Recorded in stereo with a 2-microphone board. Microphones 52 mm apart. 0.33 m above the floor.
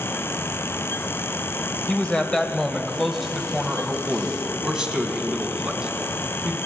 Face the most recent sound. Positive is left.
turn(degrees=-20)  # may be behind; listen again after turning